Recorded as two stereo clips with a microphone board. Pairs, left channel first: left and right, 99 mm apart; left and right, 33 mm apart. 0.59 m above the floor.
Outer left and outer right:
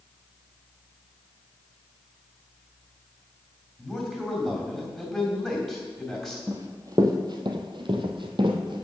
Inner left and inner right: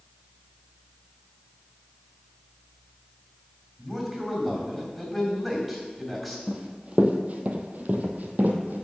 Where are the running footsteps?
30° right (ahead or behind), 1.1 m; by 8.8 s 55° right (ahead or behind), 1.3 m.